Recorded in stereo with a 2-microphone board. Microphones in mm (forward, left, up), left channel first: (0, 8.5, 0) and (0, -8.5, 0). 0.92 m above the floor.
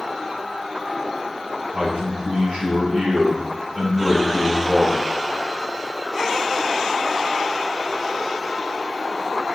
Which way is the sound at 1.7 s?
85° right.